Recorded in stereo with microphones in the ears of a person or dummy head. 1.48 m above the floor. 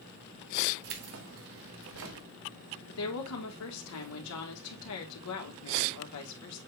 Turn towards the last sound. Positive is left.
turn(degrees=75)  # may be behind; listen again after turning